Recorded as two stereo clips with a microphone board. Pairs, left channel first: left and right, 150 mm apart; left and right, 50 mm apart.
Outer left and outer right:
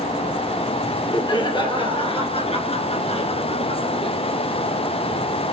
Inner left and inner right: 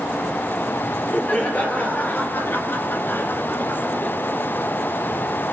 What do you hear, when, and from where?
0.8 s laughter: 30° left (ahead or behind), 3.5 m; by 4.2 s 35° left (ahead or behind), 2.5 m